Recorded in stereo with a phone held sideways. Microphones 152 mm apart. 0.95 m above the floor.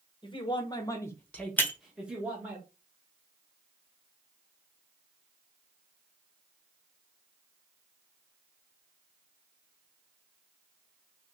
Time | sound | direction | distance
0.2 | a man speaking | 35° left (ahead or behind) | 1.0 m
1.6 | breaking glass | 15° left (ahead or behind) | 0.6 m